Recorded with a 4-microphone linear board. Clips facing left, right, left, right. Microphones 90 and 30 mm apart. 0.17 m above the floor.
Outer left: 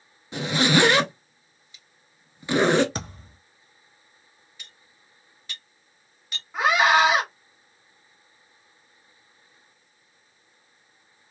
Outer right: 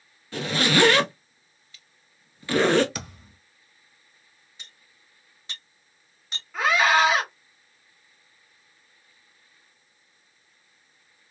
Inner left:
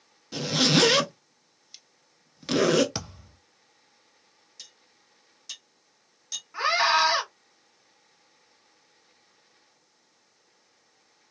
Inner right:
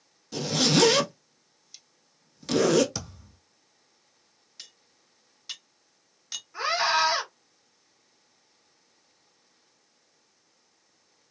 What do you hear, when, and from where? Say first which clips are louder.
0.3 s a zipper: outer left 2 dB, inner left 1 dB; 20° left (ahead or behind), 0.7 m
3.0 s a thud: outer left 3 dB, inner left 2 dB; 35° left (ahead or behind), 0.7 m
4.6 s cutlery clinking: even, even; 25° right (ahead or behind), 1.1 m
6.5 s a scream: outer left 1 dB, inner left 2 dB; 25° left (ahead or behind), 1.7 m